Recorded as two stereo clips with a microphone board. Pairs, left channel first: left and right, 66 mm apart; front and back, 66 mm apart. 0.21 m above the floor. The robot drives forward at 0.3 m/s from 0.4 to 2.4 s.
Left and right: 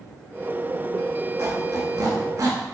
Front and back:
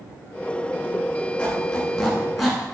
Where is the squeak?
70° right, 0.9 m; by 2.6 s 90° right, 0.9 m.